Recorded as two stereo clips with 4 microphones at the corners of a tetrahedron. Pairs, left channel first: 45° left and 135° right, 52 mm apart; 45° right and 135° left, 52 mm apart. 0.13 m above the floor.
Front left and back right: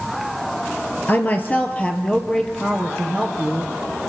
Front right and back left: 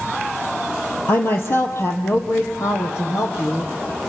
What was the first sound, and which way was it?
A woman speaking, 5° right.